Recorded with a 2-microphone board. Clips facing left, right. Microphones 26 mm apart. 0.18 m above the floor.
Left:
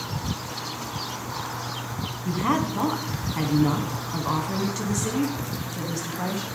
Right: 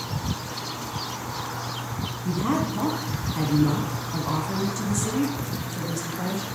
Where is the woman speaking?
30° left (ahead or behind), 1.1 m.